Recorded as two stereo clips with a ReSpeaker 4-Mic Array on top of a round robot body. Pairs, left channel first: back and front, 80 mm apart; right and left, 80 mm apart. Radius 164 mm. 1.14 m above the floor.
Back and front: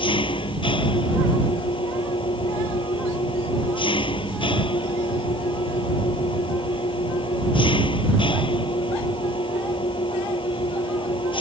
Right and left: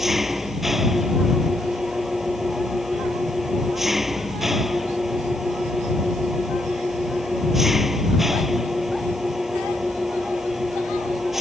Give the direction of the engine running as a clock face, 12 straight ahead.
6 o'clock.